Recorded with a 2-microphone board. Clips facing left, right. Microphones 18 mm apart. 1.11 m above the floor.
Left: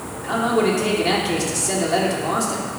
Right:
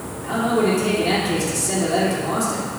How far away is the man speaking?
About 2.5 m.